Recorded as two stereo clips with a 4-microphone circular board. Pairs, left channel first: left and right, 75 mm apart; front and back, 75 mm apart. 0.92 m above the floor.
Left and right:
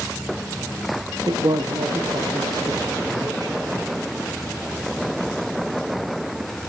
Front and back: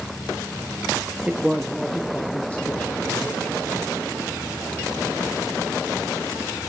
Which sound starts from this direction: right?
A man speaking, at 1.3 s.